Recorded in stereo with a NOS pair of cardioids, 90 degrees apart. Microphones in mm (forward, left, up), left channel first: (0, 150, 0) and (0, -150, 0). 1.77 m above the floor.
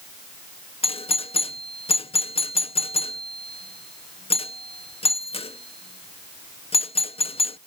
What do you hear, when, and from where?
0.8 s a doorbell: 20° left